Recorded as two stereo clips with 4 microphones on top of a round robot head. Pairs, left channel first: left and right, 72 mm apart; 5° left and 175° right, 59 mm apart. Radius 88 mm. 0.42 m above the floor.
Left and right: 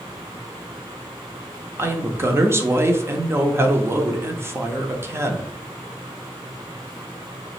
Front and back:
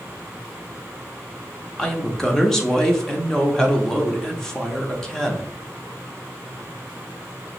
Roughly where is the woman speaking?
Right.